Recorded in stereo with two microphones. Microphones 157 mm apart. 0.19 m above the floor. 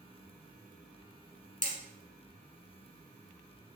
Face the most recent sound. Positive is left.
turn(degrees=55)  # may be behind; listen again after turning